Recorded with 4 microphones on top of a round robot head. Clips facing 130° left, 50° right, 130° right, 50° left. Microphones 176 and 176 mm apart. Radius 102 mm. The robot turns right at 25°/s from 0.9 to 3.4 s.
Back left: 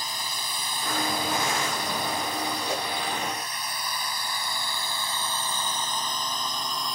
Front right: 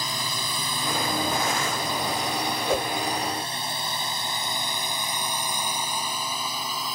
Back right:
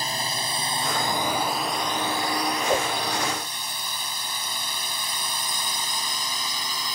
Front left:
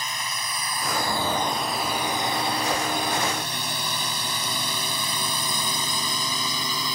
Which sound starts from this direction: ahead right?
A whoosh, at 2.7 s.